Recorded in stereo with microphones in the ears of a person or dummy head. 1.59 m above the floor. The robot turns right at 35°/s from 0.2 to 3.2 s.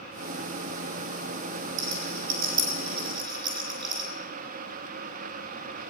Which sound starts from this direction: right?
A rattle, at 1.8 s.